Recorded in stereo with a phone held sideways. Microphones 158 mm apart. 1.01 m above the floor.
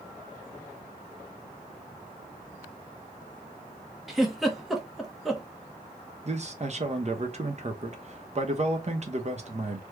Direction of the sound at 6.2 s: 45° right (ahead or behind).